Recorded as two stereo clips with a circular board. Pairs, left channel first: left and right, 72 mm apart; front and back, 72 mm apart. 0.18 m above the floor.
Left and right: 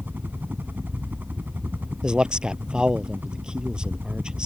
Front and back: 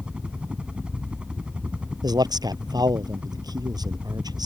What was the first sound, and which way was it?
A helicopter, 120° right.